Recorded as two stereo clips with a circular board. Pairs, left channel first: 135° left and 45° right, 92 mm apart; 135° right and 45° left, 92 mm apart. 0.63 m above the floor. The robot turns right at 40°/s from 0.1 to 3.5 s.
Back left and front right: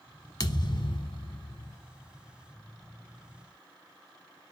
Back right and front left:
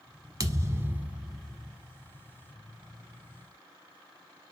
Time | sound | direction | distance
0.4 | a thud | 90° left | 1.0 m